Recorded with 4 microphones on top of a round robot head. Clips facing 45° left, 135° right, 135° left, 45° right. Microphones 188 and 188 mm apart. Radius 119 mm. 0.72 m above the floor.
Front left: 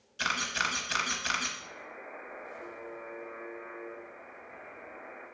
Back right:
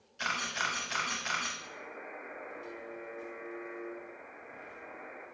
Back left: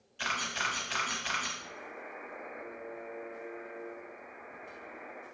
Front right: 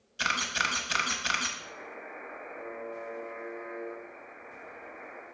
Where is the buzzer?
105° right, 4 m.